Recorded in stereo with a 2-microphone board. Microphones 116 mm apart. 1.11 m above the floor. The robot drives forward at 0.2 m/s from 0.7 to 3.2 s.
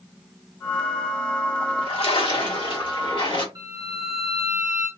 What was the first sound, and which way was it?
A splash, 55° left (ahead or behind).